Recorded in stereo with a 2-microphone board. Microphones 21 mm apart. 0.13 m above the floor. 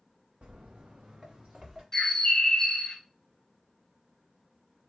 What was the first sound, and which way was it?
Footsteps, 80° right.